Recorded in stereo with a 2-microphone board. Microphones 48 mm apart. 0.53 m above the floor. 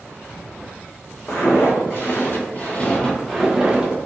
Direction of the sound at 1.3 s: 60° left (ahead or behind).